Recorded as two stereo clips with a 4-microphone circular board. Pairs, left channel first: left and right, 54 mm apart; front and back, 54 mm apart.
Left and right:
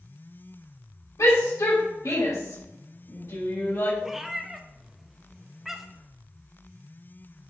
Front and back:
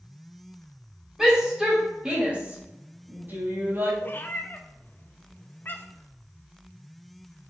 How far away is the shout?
About 3 m.